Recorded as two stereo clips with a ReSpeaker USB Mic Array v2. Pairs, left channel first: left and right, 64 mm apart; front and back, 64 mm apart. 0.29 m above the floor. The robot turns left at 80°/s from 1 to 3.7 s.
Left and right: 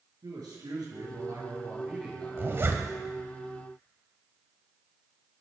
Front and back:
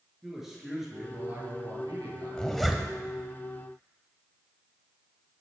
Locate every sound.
0.2 s a man speaking: 95° right, 5 m; by 2.8 s 120° left, 5 m
2.4 s a zipper: 65° right, 1.5 m; by 2.9 s 105° right, 1.5 m